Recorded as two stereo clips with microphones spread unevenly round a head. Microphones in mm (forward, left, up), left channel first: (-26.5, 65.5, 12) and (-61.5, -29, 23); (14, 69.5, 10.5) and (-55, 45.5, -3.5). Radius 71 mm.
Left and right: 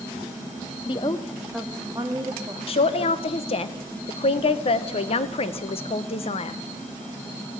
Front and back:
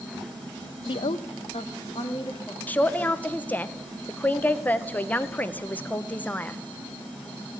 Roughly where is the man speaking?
Left.